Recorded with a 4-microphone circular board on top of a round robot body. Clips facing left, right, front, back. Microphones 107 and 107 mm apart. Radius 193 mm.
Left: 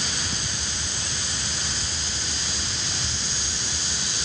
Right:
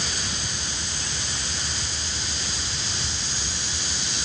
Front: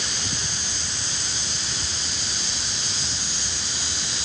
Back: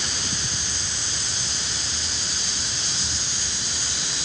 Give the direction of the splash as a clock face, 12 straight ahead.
I don't hear a splash.